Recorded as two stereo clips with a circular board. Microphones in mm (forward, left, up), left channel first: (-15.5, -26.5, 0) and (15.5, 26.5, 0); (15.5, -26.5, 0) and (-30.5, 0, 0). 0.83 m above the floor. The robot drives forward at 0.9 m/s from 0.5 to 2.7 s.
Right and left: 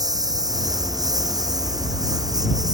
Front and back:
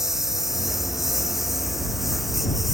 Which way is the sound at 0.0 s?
65° left.